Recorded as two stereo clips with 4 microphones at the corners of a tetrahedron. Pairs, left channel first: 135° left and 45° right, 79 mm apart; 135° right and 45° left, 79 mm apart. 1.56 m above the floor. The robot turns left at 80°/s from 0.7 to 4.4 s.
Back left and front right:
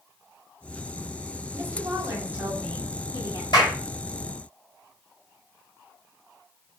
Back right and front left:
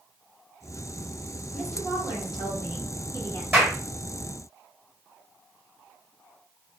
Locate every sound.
1.5 s a woman speaking: 50° right, 1.2 m; by 3.4 s 155° left, 1.2 m
3.5 s a clap: 115° left, 1.5 m; by 3.8 s 95° left, 1.5 m